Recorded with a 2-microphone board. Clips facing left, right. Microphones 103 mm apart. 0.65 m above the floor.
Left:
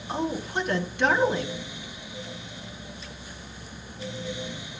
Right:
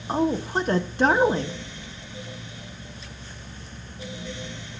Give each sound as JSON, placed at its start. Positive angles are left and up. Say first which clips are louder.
{"t": 0.1, "sound": "a woman speaking", "louder": "right 5 dB", "side_deg": -35, "distance_m": 1.2}